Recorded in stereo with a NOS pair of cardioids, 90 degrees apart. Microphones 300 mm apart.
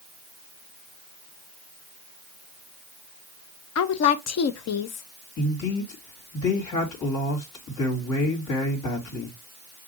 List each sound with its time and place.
3.8 s a woman speaking: 55° left, 0.8 m
5.4 s a man speaking: 70° left, 3 m